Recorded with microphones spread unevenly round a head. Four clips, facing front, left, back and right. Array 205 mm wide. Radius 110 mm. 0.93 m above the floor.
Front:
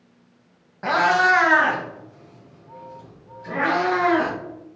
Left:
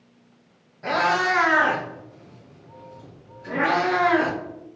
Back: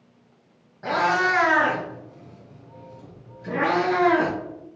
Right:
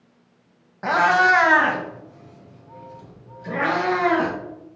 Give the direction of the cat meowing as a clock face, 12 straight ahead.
2 o'clock.